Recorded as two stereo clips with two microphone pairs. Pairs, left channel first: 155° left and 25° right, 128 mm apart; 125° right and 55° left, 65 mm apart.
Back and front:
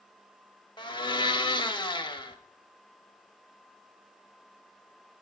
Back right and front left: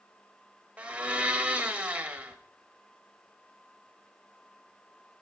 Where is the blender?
115° left, 1.0 m.